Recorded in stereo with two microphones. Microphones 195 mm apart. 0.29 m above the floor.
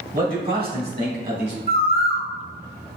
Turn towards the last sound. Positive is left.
turn(degrees=50)  # may be behind; listen again after turning